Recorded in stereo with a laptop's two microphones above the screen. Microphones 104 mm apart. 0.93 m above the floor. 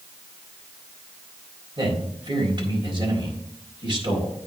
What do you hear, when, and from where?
1.8 s a man speaking: 50° right (ahead or behind), 4 m